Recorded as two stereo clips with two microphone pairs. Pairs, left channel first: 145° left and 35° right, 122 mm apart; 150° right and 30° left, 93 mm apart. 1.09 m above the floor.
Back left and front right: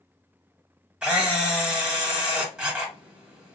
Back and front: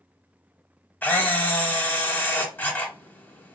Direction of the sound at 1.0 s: 100° right.